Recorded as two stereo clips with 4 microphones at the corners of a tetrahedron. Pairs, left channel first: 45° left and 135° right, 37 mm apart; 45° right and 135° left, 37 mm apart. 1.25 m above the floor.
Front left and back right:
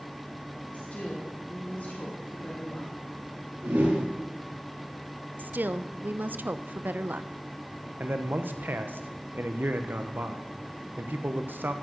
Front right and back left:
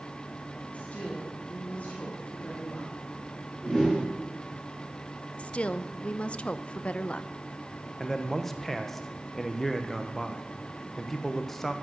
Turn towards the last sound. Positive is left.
turn(degrees=-125)